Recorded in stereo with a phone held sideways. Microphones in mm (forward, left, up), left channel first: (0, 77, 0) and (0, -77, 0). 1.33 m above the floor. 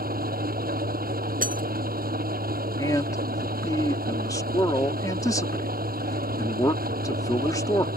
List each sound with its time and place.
0.0 s an engine running: 75° right (ahead or behind)
1.4 s breaking glass: 65° right (ahead or behind)
2.8 s a man speaking: 25° left (ahead or behind)